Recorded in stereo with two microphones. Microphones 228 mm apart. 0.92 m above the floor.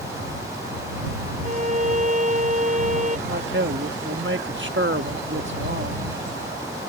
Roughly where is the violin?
Right.